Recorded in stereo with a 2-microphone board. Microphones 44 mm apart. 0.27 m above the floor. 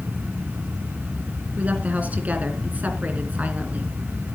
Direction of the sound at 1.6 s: 40° right (ahead or behind).